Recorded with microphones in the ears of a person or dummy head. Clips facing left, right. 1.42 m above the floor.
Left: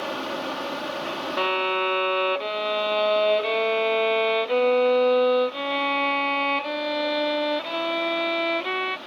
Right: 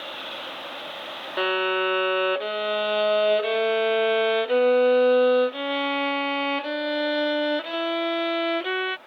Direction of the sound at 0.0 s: 75° left (ahead or behind).